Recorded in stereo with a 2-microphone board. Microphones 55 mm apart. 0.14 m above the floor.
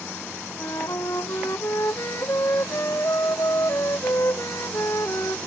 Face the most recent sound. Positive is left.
turn(degrees=65)  # may be behind; listen again after turning